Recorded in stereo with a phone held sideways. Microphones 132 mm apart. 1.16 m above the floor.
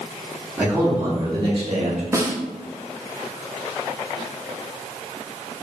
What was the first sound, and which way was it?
A man speaking, 10° right (ahead or behind).